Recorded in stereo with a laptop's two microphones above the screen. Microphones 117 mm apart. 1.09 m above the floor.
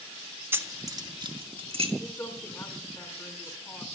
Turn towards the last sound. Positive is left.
turn(degrees=20)  # may be behind; listen again after turning